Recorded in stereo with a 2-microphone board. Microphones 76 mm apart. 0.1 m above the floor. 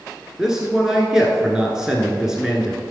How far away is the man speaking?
About 1.2 m.